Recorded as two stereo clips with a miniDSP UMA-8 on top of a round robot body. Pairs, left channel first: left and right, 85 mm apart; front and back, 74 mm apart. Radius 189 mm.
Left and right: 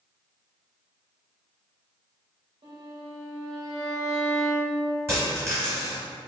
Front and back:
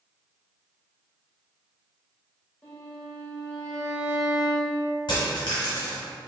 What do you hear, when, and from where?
2.6 s a violin: 65° right, 1.9 m
5.1 s a dropped coin: 30° right, 0.8 m